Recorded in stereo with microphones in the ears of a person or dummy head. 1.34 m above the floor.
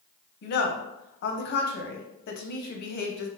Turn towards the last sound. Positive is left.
turn(degrees=55)  # may be behind; listen again after turning